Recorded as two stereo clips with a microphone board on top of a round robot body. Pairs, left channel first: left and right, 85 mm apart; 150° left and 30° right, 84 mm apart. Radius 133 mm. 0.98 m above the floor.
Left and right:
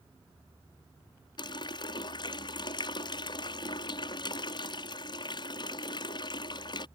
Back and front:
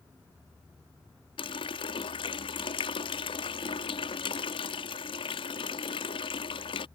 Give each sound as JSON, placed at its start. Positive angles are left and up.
{"t": 1.4, "sound": "a running tap", "azimuth_deg": 125}